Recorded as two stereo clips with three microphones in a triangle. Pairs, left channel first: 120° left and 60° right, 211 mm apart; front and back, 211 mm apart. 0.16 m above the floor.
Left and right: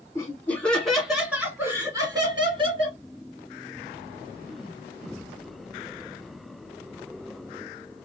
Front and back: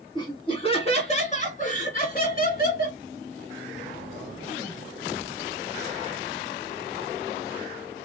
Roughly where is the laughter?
Ahead left.